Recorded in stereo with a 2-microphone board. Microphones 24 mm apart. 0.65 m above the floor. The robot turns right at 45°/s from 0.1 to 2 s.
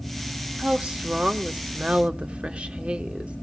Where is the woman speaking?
130° right, 1.4 m; by 3.4 s 65° right, 1.4 m.